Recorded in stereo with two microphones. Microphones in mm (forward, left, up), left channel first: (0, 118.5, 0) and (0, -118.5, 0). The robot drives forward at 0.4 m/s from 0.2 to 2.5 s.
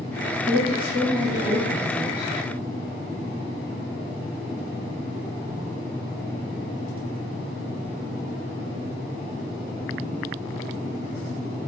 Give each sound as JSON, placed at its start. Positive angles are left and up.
{"t": 0.5, "sound": "a woman speaking", "side_deg": 20, "distance_m": 1.3}